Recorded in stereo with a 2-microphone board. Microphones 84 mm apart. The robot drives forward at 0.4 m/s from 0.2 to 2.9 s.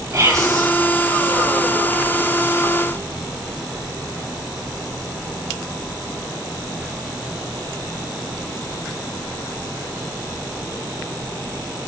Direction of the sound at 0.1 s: 40° right (ahead or behind).